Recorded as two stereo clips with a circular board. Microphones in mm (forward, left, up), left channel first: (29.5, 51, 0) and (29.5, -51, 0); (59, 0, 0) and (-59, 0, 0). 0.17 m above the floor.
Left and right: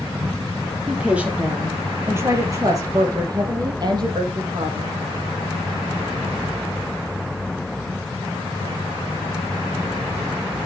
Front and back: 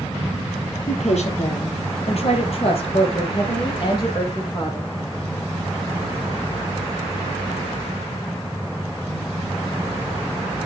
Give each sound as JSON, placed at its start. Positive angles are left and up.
{"t": 0.9, "sound": "a woman speaking", "azimuth_deg": -10, "distance_m": 3.5}